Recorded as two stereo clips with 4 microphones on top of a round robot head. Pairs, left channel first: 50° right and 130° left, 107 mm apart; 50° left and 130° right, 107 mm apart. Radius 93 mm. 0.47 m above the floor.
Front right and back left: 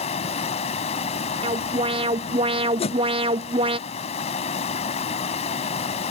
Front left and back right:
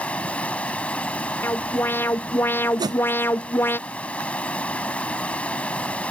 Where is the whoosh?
75° right.